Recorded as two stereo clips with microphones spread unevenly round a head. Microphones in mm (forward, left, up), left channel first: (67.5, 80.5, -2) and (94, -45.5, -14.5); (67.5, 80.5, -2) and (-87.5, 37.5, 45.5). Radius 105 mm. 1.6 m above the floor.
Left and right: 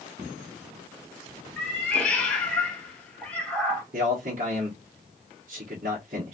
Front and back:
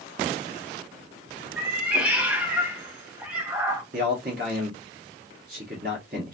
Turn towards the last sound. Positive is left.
turn(degrees=-125)